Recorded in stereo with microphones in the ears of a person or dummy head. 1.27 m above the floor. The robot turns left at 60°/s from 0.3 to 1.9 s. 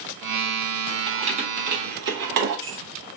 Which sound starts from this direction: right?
Keys jangling, at 1.1 s.